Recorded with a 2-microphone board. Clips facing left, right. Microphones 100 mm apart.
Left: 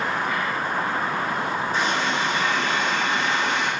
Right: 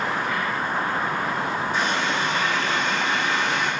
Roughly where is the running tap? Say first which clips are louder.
Left 1 dB; left.